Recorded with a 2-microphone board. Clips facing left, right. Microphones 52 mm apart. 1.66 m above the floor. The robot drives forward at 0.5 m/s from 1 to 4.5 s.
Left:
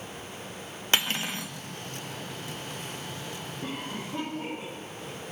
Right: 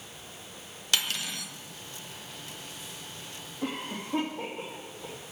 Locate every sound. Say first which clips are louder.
0.9 s cutlery clinking: left 3 dB; 35° left (ahead or behind), 0.9 m
3.6 s a cough: right 3 dB; 70° right (ahead or behind), 3 m; by 5.2 s 60° right (ahead or behind), 3.5 m